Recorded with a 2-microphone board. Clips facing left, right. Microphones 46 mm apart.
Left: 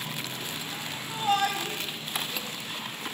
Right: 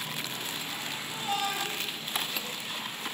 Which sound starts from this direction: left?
A shout, at 1.1 s.